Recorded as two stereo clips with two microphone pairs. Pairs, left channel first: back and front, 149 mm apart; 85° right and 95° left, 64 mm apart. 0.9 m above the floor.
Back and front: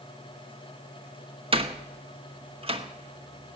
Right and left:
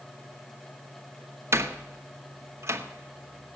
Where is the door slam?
50° left, 1.2 m.